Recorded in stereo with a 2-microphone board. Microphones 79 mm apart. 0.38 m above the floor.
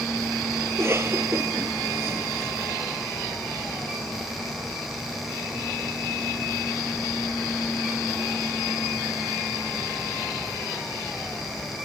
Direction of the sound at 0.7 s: 35° right (ahead or behind).